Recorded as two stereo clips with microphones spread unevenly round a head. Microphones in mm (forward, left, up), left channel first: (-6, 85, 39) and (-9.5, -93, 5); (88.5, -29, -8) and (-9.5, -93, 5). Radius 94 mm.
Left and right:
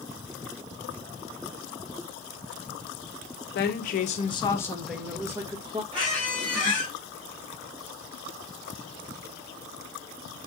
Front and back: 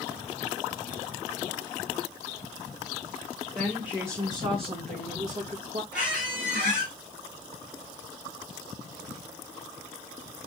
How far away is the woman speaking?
About 1.0 m.